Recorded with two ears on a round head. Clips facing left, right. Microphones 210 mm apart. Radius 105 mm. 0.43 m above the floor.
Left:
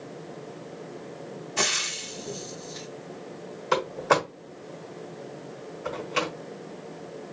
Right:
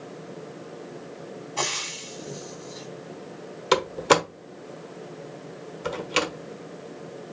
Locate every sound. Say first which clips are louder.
1.6 s frying: left 2 dB; 20° left (ahead or behind), 1.0 m
3.7 s a door slam: right 3 dB; 50° right (ahead or behind), 1.1 m